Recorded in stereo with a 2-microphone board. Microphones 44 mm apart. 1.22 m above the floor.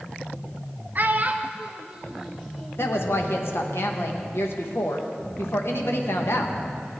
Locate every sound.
0.9 s a child speaking: 45° right (ahead or behind), 0.6 m; by 2.9 s 10° right (ahead or behind), 1.7 m
2.8 s a woman speaking: 65° left (ahead or behind), 1.3 m